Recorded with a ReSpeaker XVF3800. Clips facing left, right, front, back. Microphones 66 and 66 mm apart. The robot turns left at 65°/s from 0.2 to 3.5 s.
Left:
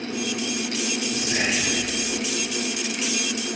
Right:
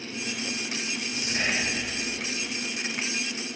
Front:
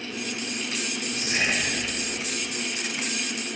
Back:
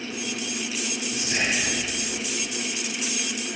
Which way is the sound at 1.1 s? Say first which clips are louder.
Left 2 dB, even; 105° left.